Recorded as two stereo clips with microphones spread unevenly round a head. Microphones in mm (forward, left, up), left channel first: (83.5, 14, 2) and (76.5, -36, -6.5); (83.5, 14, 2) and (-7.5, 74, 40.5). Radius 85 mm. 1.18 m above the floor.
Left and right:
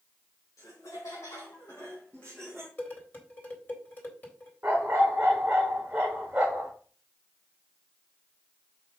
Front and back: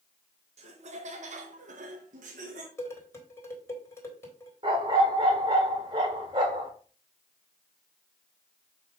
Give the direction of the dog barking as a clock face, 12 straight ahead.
6 o'clock.